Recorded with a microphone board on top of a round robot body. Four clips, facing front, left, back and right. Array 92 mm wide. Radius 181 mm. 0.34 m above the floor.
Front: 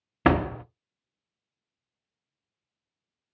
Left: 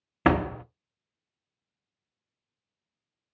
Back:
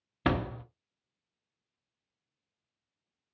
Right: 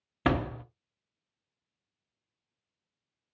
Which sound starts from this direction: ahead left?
A door slam, at 0.2 s.